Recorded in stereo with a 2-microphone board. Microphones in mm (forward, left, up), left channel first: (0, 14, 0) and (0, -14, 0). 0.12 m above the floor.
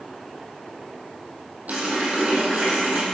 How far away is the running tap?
About 2.5 m.